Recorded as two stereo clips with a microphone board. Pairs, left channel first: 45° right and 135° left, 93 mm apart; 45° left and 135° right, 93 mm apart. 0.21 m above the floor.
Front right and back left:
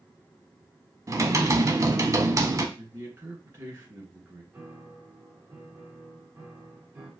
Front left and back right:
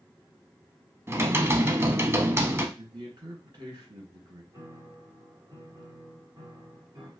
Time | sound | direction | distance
1.1 | typing on a keyboard | 170° left | 0.6 m
2.8 | a man speaking | 170° right | 3 m
4.5 | a piano | 165° right | 2.5 m